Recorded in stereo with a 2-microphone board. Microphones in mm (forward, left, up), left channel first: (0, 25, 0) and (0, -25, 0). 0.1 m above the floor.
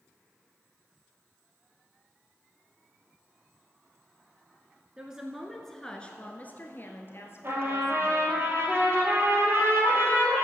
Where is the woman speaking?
15° right (ahead or behind), 1.1 m; by 8.4 s 65° left (ahead or behind), 2 m.